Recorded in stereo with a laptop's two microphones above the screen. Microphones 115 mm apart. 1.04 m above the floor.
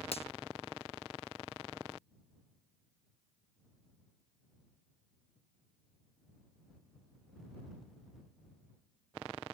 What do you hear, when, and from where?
0.1 s a finger snap: 60° left (ahead or behind)